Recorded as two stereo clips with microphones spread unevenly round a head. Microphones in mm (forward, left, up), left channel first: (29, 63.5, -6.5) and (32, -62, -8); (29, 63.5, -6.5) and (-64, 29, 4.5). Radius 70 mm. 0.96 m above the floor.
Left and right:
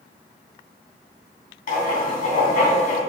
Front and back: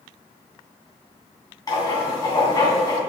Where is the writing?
75° left, 3 m.